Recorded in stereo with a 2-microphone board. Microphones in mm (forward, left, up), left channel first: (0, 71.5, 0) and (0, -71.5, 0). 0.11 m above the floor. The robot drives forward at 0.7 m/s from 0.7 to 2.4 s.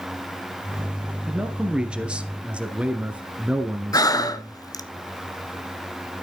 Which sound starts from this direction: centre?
A man speaking, at 1.3 s.